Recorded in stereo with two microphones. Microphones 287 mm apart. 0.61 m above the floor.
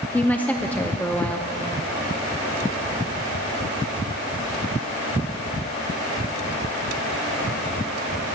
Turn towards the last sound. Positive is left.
turn(degrees=5)  # may be behind; listen again after turning